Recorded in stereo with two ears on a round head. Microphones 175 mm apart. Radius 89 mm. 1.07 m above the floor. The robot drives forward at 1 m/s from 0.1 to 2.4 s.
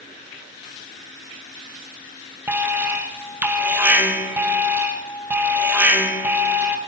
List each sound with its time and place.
2.5 s an alarm: 10° right (ahead or behind), 0.7 m